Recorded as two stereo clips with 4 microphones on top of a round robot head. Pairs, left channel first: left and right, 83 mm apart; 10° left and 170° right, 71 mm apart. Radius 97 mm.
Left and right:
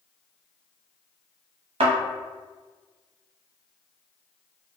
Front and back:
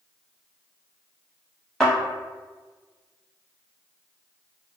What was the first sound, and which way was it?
A thud, 75° right.